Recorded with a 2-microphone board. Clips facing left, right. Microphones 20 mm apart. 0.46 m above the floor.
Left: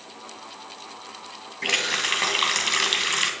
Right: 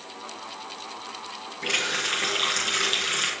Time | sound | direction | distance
1.6 | a running tap | 70° left (ahead or behind) | 2 m